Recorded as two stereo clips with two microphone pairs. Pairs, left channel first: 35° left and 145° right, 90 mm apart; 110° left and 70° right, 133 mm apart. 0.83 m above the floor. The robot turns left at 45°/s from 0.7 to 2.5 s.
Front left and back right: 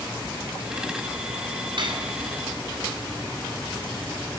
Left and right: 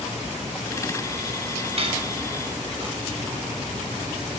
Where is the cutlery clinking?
110° right, 5 m; by 2.1 s 125° right, 5 m.